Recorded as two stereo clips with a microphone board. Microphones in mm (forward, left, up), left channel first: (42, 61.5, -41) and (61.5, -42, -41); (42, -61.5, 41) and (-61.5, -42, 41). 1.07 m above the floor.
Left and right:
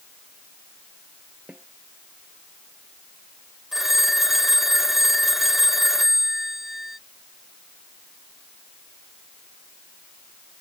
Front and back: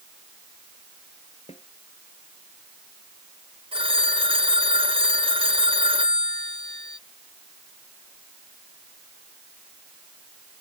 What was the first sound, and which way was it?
A snare drum, straight ahead.